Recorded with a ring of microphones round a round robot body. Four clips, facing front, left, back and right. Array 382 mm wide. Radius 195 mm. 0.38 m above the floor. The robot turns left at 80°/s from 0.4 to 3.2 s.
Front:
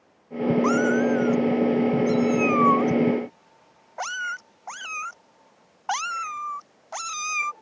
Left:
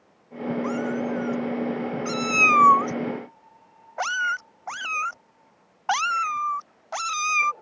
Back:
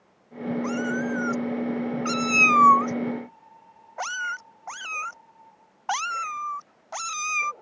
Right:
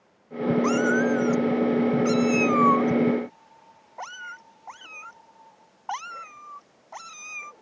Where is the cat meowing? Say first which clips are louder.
Right 5 dB, front 6 dB; 60° right; by 7.5 s 95° left.